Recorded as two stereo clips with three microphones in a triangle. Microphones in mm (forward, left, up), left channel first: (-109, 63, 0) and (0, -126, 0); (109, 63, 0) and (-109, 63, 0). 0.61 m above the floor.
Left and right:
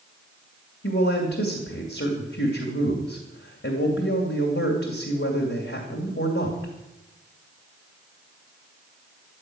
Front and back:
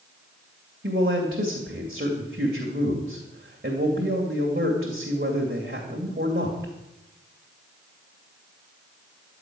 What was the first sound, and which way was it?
A man speaking, 140° left.